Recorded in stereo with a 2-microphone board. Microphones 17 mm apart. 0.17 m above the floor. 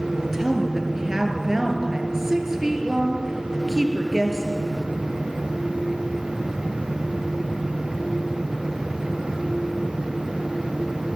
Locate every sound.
0.2 s a woman speaking: 30° right (ahead or behind), 4 m